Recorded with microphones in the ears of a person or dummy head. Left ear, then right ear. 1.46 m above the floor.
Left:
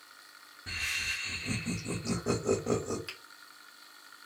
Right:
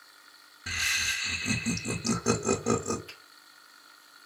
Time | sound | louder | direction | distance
0.7 | laughter | right 5 dB | 75° right (ahead or behind) | 0.7 m
3.1 | a finger snap | left 3 dB | 65° left (ahead or behind) | 1.4 m